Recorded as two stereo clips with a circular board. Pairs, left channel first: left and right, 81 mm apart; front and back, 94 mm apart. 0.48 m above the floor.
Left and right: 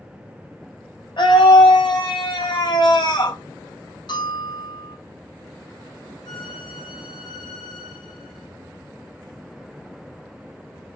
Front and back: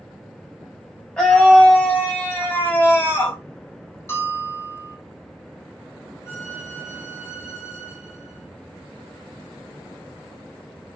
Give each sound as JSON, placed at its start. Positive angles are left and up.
{"t": 1.2, "sound": "a scream", "azimuth_deg": 80, "distance_m": 4.0}
{"t": 4.1, "sound": "a bell", "azimuth_deg": 65, "distance_m": 3.5}
{"t": 6.2, "sound": "a violin", "azimuth_deg": 60, "distance_m": 3.0}